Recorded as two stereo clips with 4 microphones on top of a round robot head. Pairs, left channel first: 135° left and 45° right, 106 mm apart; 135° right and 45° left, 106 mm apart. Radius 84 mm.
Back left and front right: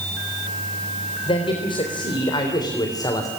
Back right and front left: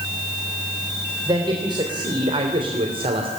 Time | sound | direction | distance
1.3 | a man speaking | 95° left | 3.5 m